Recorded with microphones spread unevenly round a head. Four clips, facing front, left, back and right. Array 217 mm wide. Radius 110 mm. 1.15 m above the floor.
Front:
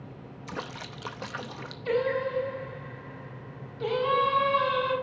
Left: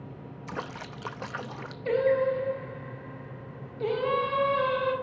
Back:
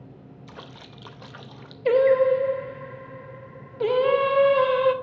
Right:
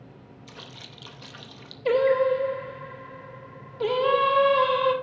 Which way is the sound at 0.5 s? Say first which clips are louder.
Left 11 dB, front 7 dB; 45° left.